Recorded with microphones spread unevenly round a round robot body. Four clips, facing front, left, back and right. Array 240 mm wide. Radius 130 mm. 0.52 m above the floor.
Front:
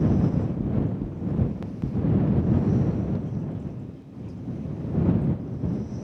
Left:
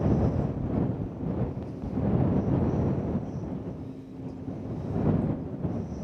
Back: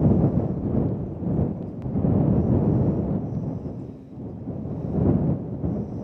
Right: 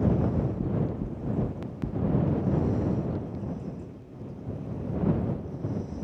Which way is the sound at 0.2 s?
20° right.